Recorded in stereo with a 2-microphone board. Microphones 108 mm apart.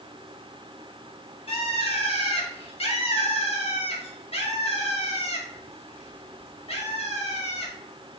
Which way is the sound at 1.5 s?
65° left (ahead or behind).